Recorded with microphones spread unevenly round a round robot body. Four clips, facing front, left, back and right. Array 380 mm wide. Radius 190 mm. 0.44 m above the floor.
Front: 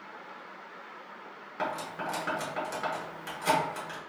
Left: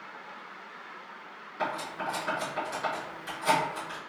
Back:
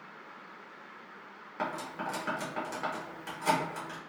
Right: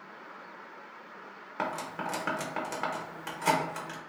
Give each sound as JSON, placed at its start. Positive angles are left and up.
{"t": 1.6, "sound": "cutlery clinking", "azimuth_deg": -65, "distance_m": 0.9}